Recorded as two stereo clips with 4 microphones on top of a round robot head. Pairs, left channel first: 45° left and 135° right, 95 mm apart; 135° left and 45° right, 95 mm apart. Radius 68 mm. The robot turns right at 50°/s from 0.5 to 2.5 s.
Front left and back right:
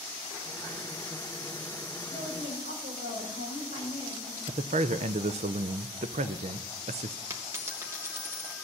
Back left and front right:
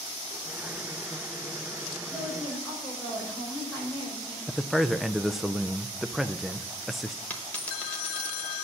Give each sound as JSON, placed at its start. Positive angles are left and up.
{"t": 2.1, "sound": "a woman speaking", "azimuth_deg": -170, "distance_m": 7.0}
{"t": 4.5, "sound": "a man speaking", "azimuth_deg": -130, "distance_m": 0.5}
{"t": 7.3, "sound": "a dropped coin", "azimuth_deg": -165, "distance_m": 1.0}